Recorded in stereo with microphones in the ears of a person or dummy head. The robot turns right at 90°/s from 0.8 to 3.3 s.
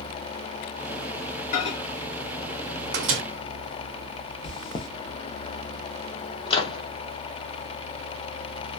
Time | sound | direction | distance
1.5 | a microwave | 45° left (ahead or behind) | 0.7 m
4.4 | chewing | 30° left (ahead or behind) | 0.8 m
6.5 | a microwave | 25° left (ahead or behind) | 0.6 m